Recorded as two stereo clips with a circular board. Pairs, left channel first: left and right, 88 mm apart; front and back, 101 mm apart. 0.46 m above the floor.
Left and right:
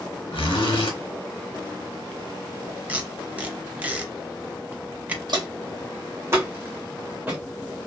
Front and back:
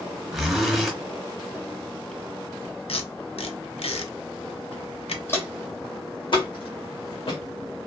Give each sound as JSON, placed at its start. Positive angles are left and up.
{"t": 0.3, "sound": "a zipper", "azimuth_deg": 90, "distance_m": 0.9}
{"t": 2.9, "sound": "tape being pulled", "azimuth_deg": -15, "distance_m": 0.6}
{"t": 5.3, "sound": "footsteps", "azimuth_deg": -65, "distance_m": 1.0}